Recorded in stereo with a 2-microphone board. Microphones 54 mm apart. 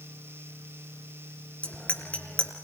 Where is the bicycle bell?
25° left (ahead or behind), 4 m.